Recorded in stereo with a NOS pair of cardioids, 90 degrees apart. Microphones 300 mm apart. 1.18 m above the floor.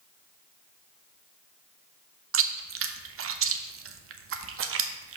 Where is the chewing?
50° right, 0.8 m.